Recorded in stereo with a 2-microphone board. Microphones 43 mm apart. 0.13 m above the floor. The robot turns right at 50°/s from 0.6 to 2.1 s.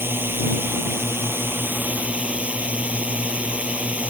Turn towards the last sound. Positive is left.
turn(degrees=-35)